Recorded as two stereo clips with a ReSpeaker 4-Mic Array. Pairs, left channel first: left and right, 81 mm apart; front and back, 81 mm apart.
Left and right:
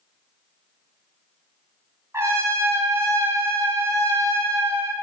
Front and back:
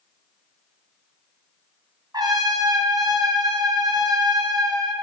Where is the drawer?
No drawer in this recording.